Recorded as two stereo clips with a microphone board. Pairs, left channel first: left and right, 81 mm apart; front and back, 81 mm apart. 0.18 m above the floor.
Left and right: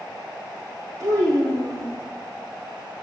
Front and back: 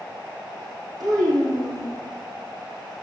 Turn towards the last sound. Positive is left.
turn(degrees=-140)